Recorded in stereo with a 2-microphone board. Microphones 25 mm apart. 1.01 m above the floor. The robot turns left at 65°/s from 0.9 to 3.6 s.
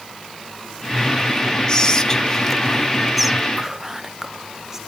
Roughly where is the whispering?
Left.